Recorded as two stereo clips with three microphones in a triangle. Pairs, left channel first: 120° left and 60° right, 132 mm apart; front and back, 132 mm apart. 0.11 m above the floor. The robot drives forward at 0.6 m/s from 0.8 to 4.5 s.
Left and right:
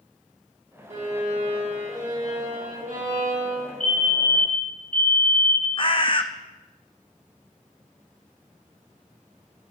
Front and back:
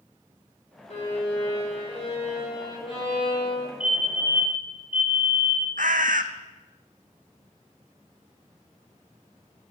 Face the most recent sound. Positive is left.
turn(degrees=170)